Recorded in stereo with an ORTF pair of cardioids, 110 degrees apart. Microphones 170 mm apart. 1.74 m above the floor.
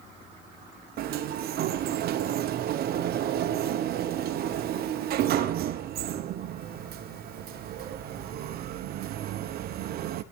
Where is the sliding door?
65° right, 0.9 m.